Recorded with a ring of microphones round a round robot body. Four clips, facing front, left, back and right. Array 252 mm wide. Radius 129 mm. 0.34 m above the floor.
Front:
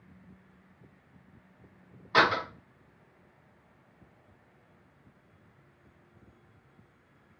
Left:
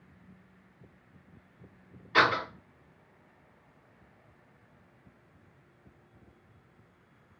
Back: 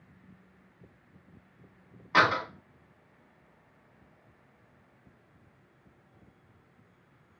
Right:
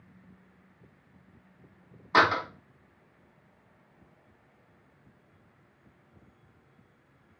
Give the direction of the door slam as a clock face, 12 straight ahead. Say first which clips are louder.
Right 2 dB, even; 3 o'clock.